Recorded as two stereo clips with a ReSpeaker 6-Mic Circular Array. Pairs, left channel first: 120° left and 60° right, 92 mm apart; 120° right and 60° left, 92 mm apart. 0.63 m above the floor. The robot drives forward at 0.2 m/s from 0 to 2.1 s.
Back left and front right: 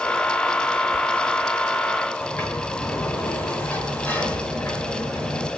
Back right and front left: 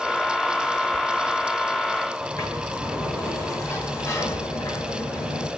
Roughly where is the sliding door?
Behind.